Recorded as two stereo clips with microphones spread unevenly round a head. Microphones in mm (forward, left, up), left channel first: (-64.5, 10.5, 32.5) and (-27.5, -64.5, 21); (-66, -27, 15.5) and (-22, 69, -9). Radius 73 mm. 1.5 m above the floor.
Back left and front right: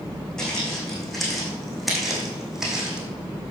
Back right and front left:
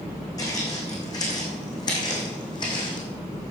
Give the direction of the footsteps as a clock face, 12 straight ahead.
5 o'clock.